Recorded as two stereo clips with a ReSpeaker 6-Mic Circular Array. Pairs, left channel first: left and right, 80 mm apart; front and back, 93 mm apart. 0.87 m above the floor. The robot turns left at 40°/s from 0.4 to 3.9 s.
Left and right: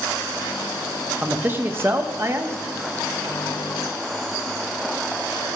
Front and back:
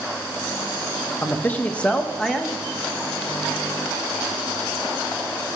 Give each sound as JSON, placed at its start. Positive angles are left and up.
{"t": 1.2, "sound": "a man speaking", "azimuth_deg": -40, "distance_m": 0.9}